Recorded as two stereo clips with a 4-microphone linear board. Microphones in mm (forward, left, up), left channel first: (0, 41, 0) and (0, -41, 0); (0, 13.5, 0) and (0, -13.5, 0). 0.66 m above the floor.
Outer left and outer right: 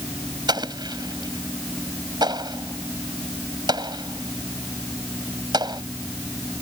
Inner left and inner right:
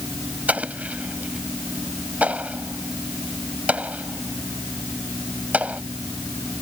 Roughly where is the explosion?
Right.